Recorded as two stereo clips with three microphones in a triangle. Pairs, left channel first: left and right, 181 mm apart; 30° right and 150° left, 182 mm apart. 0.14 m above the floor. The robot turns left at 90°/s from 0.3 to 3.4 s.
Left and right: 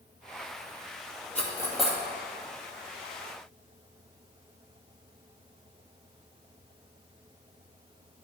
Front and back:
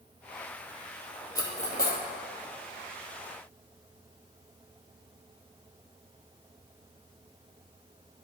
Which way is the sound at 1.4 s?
40° left.